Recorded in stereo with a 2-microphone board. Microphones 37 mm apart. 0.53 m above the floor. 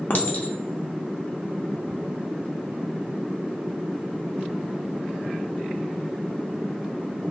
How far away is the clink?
About 0.5 m.